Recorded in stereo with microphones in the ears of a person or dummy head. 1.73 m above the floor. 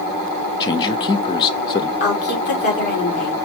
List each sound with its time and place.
0.6 s a man speaking: 20° left (ahead or behind), 0.5 m
2.0 s a woman speaking: 50° left (ahead or behind), 3 m